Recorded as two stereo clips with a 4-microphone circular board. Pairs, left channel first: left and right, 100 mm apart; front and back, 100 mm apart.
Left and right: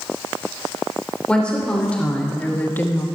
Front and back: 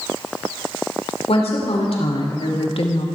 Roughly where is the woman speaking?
Ahead.